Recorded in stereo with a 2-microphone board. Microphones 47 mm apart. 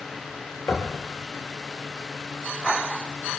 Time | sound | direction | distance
0.7 | knocking | 50° left (ahead or behind) | 3.5 m